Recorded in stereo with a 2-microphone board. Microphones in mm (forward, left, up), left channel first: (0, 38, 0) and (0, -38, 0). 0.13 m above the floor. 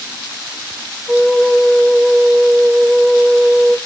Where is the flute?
15° right (ahead or behind), 1.3 m.